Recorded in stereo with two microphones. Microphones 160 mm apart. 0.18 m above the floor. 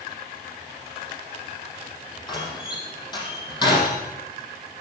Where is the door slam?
25° left (ahead or behind), 5.5 m.